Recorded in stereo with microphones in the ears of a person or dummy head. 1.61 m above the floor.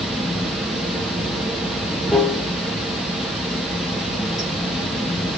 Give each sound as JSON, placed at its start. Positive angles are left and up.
{"t": 0.0, "sound": "running water", "side_deg": 0, "distance_m": 0.7}